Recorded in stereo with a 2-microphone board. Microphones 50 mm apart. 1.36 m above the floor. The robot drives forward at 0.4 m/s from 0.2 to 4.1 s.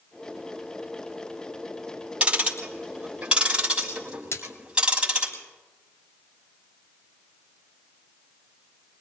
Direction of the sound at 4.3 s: 55° left (ahead or behind).